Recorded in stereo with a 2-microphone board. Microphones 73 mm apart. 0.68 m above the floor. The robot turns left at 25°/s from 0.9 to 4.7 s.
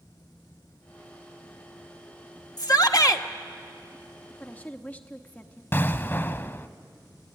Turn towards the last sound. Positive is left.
turn(degrees=30)  # may be behind; listen again after turning